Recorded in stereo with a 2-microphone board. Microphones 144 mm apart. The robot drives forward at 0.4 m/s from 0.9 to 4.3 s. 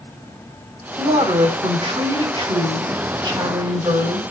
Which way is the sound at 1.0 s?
40° right (ahead or behind).